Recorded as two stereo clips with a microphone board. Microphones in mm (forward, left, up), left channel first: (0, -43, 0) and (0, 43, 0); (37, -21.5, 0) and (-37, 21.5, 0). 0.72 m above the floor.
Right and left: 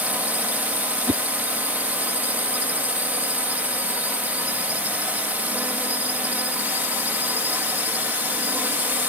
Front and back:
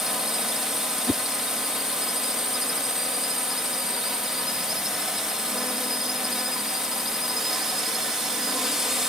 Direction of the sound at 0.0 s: 75° left.